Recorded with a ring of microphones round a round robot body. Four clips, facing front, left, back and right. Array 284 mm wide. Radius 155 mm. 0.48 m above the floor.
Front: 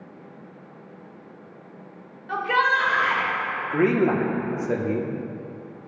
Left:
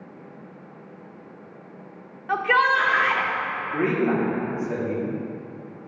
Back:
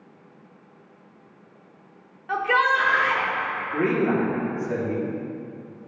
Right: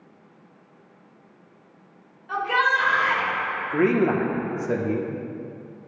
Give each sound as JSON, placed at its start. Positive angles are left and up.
{"t": 2.3, "sound": "a shout", "azimuth_deg": 105, "distance_m": 1.3}
{"t": 3.7, "sound": "a man speaking", "azimuth_deg": -45, "distance_m": 0.9}